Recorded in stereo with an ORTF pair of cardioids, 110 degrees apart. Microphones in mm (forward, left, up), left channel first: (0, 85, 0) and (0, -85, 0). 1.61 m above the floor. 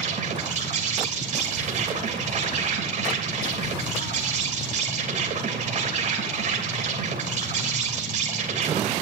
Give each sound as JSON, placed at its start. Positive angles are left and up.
{"t": 0.0, "sound": "an insect", "azimuth_deg": -45, "distance_m": 3.0}